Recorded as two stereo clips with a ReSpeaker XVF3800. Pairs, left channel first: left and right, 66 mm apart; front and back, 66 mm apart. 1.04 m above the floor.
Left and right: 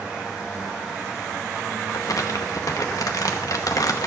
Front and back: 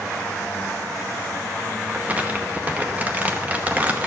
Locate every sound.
1.9 s crumpling: 115° left, 0.9 m